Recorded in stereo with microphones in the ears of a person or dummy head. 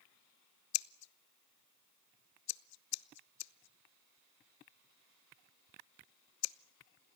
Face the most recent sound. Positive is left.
turn(degrees=75)  # may be behind; listen again after turning